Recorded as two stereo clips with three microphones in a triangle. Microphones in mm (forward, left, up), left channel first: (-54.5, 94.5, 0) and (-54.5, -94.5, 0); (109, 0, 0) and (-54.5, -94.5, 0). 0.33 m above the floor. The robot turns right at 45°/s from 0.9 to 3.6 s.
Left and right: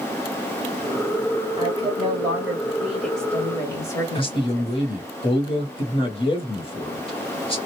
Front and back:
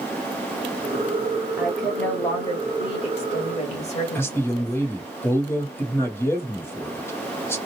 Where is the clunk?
No clunk in this recording.